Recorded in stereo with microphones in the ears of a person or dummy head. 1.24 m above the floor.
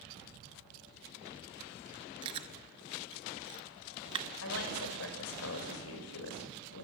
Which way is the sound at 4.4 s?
80° left.